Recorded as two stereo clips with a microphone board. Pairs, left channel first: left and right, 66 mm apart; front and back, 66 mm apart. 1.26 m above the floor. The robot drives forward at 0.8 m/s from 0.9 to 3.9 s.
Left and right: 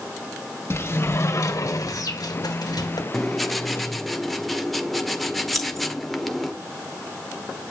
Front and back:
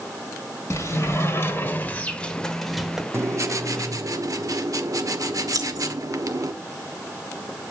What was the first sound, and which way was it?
A sliding door, 45° left.